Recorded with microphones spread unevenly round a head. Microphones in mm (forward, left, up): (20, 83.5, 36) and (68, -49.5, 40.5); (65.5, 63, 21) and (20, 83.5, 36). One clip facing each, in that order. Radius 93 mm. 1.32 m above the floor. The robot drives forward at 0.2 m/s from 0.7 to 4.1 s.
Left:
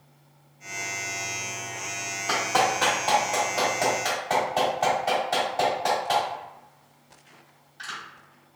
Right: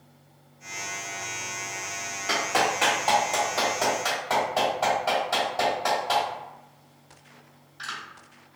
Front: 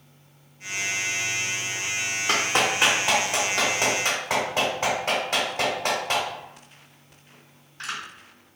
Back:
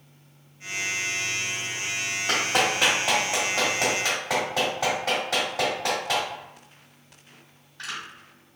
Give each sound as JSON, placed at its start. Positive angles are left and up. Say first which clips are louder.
{"t": 2.3, "sound": "a clap", "louder": "left 2 dB, front 1 dB", "azimuth_deg": -155, "distance_m": 1.7}